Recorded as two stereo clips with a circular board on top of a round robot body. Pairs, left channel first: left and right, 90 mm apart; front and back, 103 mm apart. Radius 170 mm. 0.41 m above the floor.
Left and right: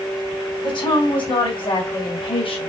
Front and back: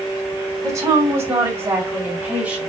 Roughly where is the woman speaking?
Behind left.